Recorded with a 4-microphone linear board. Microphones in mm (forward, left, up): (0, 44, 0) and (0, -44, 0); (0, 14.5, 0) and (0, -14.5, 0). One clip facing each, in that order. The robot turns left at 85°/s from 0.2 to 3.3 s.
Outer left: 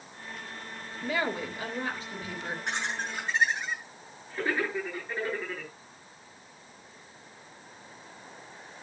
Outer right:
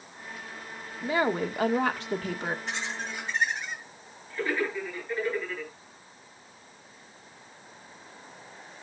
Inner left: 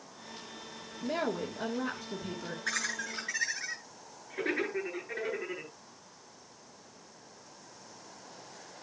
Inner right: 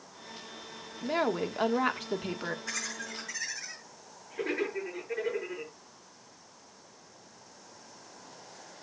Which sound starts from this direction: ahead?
A woman speaking, at 1.0 s.